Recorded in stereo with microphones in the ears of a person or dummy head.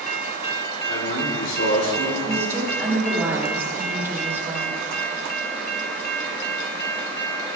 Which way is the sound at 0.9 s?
80° left.